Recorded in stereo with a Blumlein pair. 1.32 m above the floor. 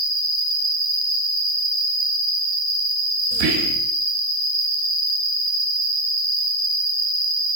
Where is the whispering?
45° right, 0.6 m.